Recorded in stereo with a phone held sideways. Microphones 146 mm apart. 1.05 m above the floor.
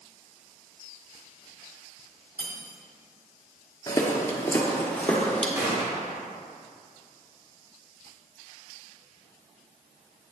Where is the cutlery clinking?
20° left (ahead or behind), 1.7 m.